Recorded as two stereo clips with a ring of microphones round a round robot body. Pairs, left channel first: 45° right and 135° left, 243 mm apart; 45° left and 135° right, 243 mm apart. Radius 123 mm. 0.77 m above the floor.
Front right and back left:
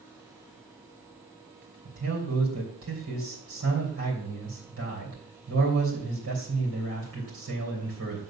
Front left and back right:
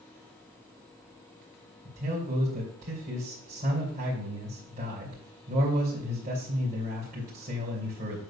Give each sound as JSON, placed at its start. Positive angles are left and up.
{"t": 1.9, "sound": "a man speaking", "azimuth_deg": 165, "distance_m": 3.0}